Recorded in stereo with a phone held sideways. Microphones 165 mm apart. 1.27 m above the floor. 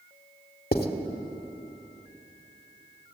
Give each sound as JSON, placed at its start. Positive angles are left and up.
{"t": 0.7, "sound": "writing", "side_deg": 65, "distance_m": 2.0}